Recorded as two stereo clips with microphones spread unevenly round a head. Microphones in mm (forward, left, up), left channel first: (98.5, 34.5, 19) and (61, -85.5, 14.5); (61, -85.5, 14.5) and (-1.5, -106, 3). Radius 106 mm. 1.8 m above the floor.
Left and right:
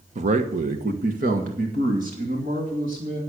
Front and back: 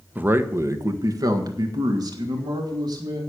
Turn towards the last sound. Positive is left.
turn(degrees=-165)